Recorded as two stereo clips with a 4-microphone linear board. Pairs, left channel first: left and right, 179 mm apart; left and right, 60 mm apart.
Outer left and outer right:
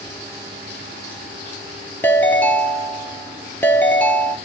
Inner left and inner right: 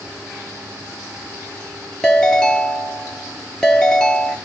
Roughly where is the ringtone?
Centre.